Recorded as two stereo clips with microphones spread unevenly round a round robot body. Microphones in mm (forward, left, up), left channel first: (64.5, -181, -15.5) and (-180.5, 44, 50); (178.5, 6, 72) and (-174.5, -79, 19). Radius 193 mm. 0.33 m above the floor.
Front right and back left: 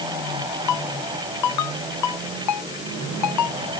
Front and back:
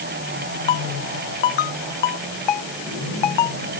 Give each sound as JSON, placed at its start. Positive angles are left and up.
{"t": 0.7, "sound": "a ringtone", "azimuth_deg": 5}